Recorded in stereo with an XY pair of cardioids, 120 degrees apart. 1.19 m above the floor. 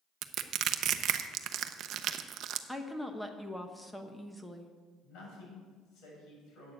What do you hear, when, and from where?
0.2 s crushing: 65° right, 0.6 m
2.7 s a woman speaking: 5° left, 1.0 m
5.0 s a man speaking: 65° left, 6 m